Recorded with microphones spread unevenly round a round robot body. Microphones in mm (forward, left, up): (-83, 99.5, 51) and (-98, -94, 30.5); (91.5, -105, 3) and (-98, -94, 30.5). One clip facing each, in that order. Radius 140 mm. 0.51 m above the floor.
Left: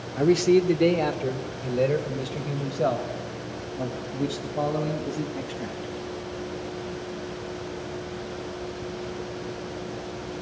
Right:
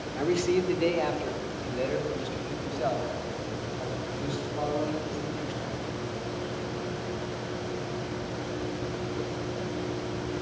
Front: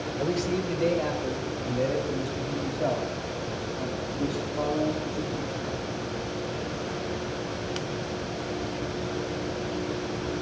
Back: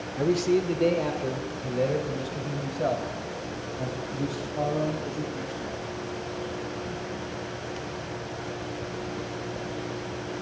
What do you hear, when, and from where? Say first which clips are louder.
0.2 s a man speaking: left 7 dB, back 5 dB; 120° left, 1.4 m; by 5.9 s 110° left, 4.5 m